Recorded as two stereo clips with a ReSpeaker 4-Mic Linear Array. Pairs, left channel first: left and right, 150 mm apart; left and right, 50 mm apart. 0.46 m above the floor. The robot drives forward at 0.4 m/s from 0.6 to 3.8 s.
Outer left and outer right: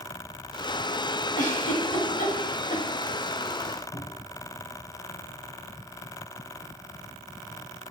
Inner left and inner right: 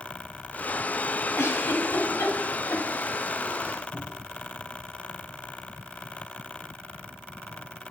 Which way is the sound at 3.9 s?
65° left (ahead or behind).